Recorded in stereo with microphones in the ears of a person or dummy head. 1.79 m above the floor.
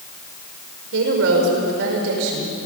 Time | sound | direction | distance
0.9 | a woman speaking | 75° right (ahead or behind) | 5 m